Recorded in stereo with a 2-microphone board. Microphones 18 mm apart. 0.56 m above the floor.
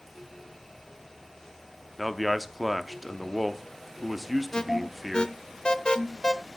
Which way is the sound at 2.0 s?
Centre (ahead or behind).